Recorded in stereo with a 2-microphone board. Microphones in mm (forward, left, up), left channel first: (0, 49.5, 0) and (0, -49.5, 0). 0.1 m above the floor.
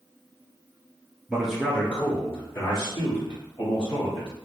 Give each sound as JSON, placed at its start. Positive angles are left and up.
{"t": 1.3, "sound": "a man speaking", "side_deg": -5, "distance_m": 1.2}